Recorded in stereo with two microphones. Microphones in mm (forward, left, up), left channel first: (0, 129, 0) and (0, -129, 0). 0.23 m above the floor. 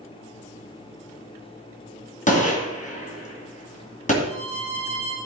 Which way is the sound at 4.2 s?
25° left (ahead or behind).